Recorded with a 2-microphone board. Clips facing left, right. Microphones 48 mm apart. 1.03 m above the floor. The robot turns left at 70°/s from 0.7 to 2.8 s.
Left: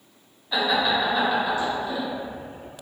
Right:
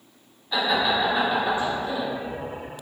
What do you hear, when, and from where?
0.5 s laughter: 5° left (ahead or behind), 0.7 m; by 2.1 s 30° right (ahead or behind), 0.7 m